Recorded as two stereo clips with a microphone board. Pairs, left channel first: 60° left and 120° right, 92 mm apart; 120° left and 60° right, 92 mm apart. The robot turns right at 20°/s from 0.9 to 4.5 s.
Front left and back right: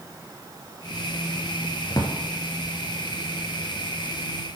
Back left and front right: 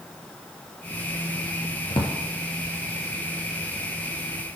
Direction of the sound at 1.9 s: 100° left.